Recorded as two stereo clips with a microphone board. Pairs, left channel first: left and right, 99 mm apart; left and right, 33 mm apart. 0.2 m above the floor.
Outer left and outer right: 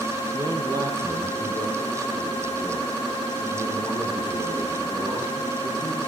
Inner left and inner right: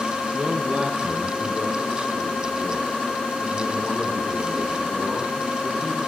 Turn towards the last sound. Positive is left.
turn(degrees=-30)  # may be behind; listen again after turning